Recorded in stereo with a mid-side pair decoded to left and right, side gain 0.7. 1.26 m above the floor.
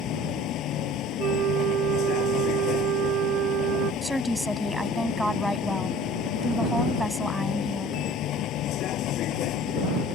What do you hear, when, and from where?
0.0 s a vehicle: 50° left
1.2 s a flute: 50° right
4.0 s a woman speaking: straight ahead